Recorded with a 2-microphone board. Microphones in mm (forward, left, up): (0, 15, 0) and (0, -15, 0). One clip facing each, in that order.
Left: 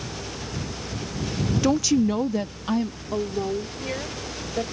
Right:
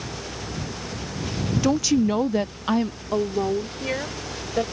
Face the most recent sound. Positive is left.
turn(degrees=-20)  # may be behind; listen again after turning